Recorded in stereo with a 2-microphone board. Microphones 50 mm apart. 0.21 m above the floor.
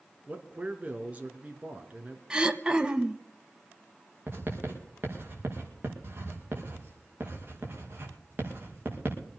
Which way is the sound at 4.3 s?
40° right (ahead or behind).